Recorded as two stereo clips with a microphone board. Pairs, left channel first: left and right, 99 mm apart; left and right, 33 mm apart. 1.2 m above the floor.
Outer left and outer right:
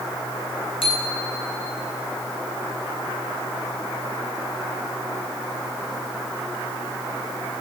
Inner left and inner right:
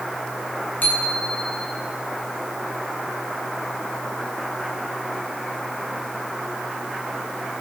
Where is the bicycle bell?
65° left (ahead or behind), 8 m.